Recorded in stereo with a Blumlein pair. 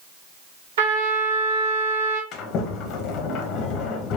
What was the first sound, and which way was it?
A trumpet, 55° right.